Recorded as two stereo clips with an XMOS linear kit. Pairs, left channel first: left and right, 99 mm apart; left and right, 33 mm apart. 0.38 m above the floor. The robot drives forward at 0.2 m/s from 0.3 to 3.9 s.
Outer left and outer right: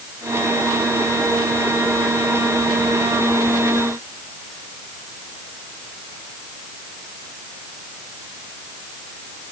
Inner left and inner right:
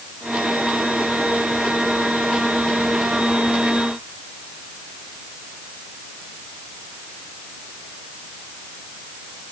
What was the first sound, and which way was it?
Only background noise.